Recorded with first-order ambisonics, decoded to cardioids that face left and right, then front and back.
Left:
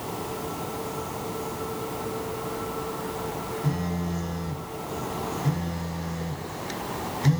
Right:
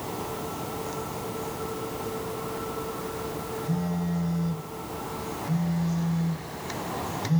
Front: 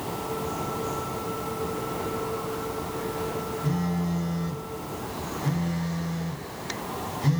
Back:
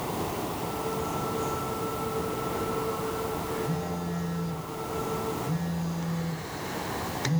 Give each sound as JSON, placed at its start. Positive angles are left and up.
{"t": 3.6, "sound": "a phone buzzing", "azimuth_deg": 35, "distance_m": 1.0}